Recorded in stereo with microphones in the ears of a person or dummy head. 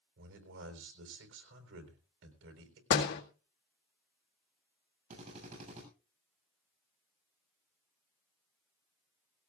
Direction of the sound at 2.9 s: 65° left (ahead or behind).